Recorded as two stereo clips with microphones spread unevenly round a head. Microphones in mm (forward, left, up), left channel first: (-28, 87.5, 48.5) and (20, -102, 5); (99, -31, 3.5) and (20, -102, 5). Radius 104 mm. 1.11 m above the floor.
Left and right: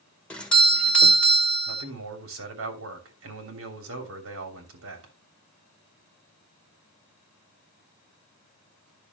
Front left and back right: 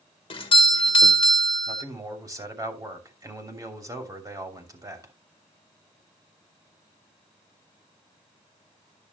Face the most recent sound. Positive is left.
turn(degrees=-85)